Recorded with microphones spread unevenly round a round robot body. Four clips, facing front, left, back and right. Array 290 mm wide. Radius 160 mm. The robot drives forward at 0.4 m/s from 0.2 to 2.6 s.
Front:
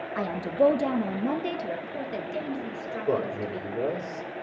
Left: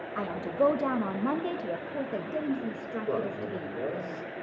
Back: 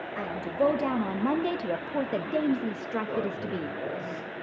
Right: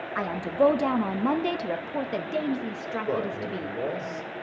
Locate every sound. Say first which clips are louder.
0.1 s a woman speaking: right 4 dB, front 4 dB; 20° right, 0.8 m; by 3.8 s 165° right, 0.9 m
3.1 s a man speaking: right 1 dB, front 3 dB; 10° right, 3.5 m